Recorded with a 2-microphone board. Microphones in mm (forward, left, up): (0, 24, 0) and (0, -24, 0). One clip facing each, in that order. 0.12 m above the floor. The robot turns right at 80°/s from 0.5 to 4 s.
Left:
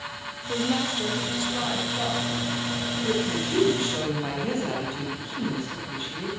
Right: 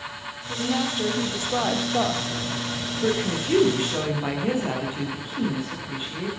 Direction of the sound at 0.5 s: 155° left.